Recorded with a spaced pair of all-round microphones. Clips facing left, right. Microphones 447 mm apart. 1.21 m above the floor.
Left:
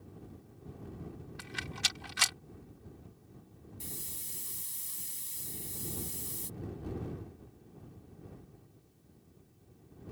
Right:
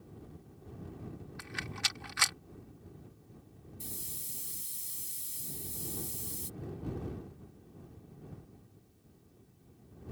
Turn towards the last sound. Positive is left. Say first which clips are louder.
# even
turn(degrees=80)